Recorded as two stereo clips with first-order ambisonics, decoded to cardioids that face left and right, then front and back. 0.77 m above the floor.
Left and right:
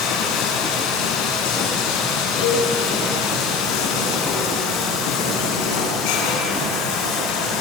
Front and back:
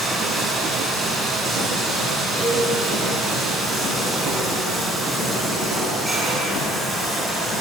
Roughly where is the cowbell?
Left.